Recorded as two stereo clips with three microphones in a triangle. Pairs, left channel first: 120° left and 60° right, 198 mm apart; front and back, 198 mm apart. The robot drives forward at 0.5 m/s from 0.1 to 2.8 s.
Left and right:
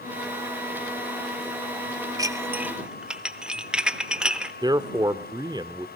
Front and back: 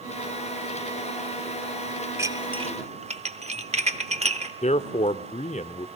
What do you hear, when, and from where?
2.2 s dishes clattering: 115° right, 0.7 m; by 4.5 s 145° right, 0.8 m
4.6 s a man speaking: 10° right, 0.8 m